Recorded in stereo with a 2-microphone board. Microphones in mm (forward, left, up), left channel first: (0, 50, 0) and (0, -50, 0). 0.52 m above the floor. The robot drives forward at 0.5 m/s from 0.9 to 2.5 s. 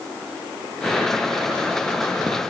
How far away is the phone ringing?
No phone ringing in this recording.